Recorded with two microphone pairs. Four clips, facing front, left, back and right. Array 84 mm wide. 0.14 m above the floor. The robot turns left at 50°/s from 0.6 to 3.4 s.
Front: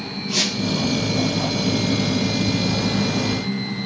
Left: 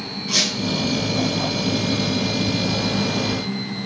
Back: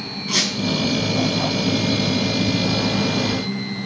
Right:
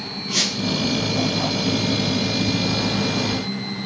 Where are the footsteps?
No footsteps in this recording.